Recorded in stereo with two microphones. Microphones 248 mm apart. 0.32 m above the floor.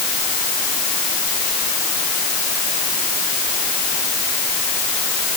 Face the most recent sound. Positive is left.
No sound to turn to.